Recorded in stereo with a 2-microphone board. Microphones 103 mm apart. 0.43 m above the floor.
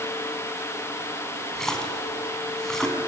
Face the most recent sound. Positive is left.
turn(degrees=5)  # may be behind; listen again after turning